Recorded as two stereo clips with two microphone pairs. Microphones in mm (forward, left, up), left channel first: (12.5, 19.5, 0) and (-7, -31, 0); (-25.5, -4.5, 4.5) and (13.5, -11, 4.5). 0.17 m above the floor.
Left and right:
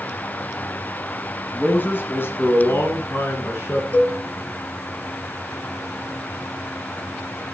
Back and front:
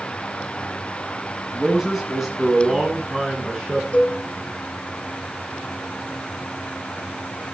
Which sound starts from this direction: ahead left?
A man speaking, at 1.5 s.